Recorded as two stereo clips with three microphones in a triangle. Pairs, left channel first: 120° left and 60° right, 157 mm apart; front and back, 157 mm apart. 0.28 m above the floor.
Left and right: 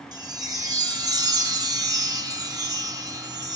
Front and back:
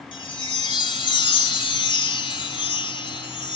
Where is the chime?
15° right, 1.0 m.